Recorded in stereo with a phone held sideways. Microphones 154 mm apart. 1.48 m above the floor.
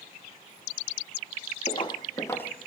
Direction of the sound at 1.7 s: 40° left (ahead or behind).